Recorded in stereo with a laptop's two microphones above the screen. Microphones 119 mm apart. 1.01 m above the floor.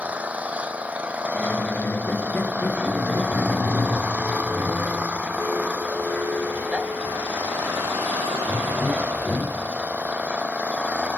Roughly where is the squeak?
Centre.